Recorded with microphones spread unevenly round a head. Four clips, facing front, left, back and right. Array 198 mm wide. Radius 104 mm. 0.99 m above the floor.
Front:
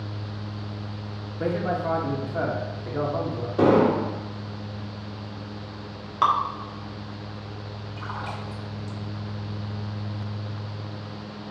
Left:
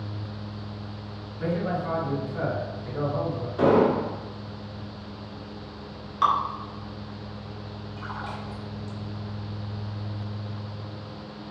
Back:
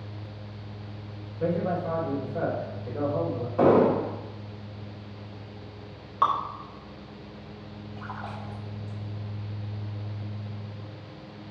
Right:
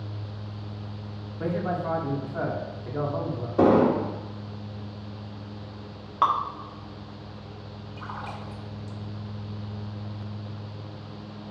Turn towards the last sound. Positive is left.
turn(degrees=-50)